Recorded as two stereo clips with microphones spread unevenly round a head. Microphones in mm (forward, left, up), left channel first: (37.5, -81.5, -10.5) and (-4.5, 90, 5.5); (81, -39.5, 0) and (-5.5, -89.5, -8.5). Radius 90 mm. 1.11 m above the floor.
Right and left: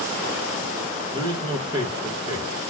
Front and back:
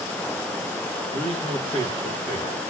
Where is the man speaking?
170° left, 1.7 m.